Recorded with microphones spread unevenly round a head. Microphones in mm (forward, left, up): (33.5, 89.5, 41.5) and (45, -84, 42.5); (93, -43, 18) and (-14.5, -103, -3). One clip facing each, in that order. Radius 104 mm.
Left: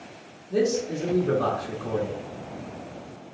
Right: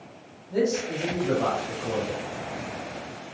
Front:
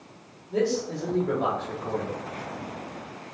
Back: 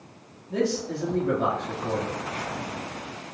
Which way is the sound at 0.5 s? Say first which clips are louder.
Left 1 dB, front 1 dB; 160° left.